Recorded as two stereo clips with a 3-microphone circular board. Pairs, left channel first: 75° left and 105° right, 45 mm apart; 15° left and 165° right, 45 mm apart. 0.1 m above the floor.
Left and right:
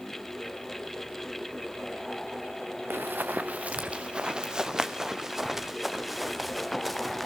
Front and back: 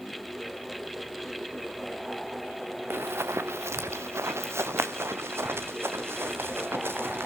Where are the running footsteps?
140° right, 0.8 m; by 7.3 s 165° left, 2.5 m.